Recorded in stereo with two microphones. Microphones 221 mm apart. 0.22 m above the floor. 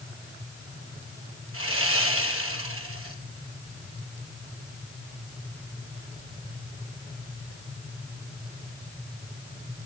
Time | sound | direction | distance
1.5 | sawing | 75° right (ahead or behind) | 2 m